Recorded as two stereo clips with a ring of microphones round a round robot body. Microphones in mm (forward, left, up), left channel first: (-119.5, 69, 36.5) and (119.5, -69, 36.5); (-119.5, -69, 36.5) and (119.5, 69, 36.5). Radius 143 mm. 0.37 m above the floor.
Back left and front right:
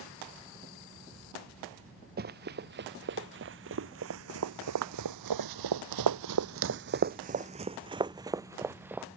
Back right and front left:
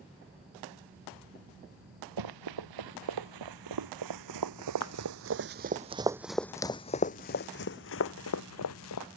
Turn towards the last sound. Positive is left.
turn(degrees=-115)